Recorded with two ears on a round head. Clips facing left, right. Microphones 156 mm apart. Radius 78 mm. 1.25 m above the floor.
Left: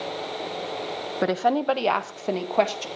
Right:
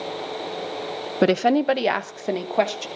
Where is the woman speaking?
35° right (ahead or behind), 0.7 m; by 2.9 s centre (ahead or behind), 1.7 m.